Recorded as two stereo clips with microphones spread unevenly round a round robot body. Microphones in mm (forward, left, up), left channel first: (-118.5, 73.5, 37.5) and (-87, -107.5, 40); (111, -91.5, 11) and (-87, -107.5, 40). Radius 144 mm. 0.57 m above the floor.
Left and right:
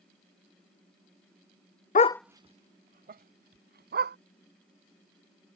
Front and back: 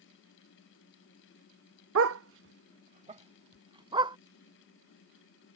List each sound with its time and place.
1.9 s a dog barking: 150° left; by 4.2 s 110° right